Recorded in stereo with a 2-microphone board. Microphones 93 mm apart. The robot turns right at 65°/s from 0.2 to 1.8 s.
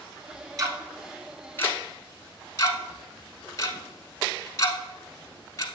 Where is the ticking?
40° right (ahead or behind), 1.0 m; by 5.7 s 35° left (ahead or behind), 1.0 m.